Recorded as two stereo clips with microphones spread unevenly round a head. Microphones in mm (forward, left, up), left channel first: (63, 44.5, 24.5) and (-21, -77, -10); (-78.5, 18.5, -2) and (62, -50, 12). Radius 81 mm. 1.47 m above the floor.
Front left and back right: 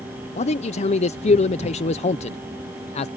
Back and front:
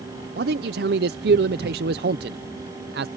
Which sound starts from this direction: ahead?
A man speaking, at 0.4 s.